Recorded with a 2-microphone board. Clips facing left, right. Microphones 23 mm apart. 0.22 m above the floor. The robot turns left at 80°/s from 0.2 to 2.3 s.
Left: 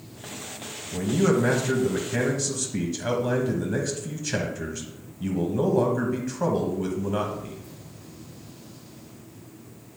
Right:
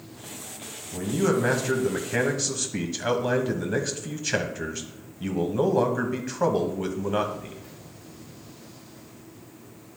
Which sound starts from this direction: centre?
A man speaking, at 0.9 s.